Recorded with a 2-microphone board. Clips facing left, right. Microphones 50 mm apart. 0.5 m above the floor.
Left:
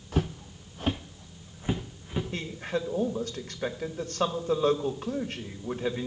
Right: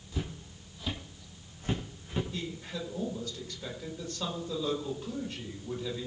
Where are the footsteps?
55° left (ahead or behind), 1.0 m; by 2.2 s 10° left (ahead or behind), 2.5 m.